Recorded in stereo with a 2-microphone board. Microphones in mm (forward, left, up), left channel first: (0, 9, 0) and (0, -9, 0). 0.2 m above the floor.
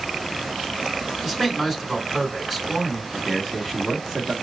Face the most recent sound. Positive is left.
turn(degrees=5)  # may be behind; listen again after turning